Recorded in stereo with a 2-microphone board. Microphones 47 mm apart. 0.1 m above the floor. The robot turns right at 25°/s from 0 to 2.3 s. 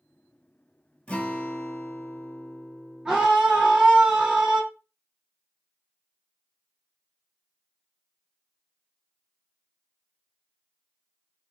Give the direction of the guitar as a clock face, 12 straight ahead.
11 o'clock.